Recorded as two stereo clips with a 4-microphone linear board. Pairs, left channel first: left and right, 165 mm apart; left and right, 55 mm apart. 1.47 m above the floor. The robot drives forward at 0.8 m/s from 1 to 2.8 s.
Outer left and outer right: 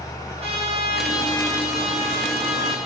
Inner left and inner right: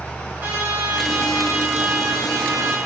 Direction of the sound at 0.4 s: 40° right (ahead or behind).